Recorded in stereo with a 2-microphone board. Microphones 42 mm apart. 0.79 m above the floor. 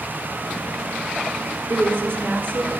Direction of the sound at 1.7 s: 70° right (ahead or behind).